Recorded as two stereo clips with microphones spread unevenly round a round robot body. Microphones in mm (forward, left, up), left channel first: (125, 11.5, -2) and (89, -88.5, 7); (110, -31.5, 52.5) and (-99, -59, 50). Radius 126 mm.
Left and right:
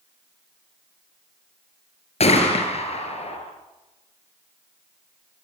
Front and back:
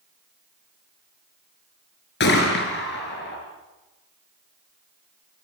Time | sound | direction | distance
2.2 | a gunshot | 55° left | 5 m